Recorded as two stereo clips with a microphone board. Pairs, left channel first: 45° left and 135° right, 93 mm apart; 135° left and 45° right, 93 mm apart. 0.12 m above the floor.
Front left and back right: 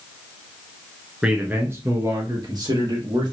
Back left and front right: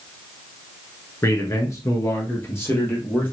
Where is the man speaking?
150° left, 1.3 m; by 3.3 s 160° right, 2.5 m.